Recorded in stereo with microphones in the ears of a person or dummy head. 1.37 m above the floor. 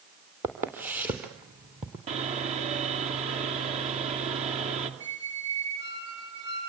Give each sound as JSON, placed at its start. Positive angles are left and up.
{"t": 0.4, "sound": "footsteps", "side_deg": -10, "distance_m": 2.5}
{"t": 2.1, "sound": "sawing", "side_deg": -40, "distance_m": 2.5}
{"t": 5.0, "sound": "a squeak", "side_deg": -25, "distance_m": 4.5}